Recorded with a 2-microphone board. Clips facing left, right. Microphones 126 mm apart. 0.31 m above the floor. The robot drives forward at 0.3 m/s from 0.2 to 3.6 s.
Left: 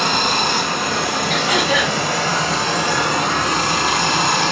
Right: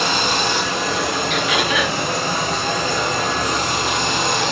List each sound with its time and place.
0.0 s running water: 45° left (ahead or behind), 0.9 m; by 4.5 s 55° left (ahead or behind), 0.8 m
1.3 s throat clearing: 40° left (ahead or behind), 0.5 m; by 2.0 s 30° left (ahead or behind), 0.7 m